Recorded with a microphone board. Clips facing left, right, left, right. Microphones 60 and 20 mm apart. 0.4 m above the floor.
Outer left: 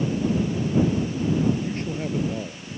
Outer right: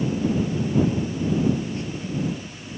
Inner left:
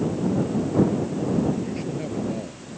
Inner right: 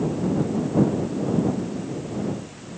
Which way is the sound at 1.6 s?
45° left (ahead or behind).